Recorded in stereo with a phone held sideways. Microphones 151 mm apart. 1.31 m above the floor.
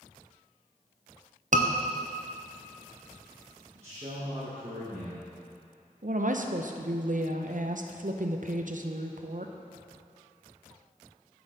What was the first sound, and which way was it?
A scream, 55° right (ahead or behind).